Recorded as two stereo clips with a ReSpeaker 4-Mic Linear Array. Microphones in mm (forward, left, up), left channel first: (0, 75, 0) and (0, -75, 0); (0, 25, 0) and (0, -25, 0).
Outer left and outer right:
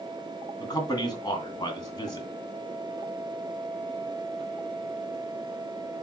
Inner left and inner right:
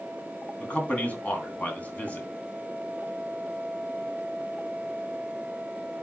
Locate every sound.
0.6 s a man speaking: 25° left (ahead or behind), 2 m